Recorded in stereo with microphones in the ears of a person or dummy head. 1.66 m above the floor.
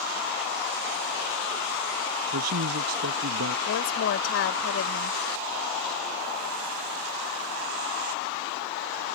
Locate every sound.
2.3 s a man speaking: 80° right
3.7 s a woman speaking: 80° left